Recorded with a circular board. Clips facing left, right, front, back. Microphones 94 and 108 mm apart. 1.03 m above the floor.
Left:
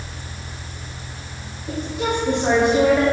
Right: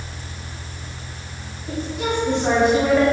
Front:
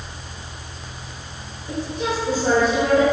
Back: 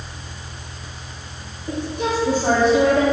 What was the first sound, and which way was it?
A woman speaking, 170° left.